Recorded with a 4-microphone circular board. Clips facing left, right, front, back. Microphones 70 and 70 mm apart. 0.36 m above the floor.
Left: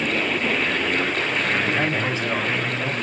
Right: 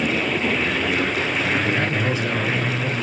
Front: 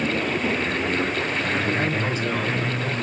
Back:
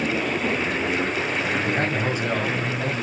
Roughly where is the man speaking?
Behind left.